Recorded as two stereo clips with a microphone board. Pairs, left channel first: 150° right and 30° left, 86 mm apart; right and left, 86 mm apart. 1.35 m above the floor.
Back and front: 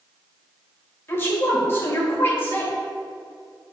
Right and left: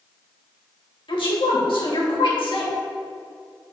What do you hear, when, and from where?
1.1 s a woman speaking: 85° right, 2.5 m